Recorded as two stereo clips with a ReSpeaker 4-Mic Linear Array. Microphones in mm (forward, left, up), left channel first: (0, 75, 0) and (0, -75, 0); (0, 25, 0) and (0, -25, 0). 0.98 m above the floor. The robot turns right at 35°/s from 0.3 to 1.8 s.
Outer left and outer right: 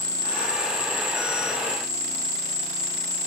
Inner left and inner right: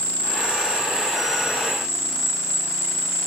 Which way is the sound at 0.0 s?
60° right.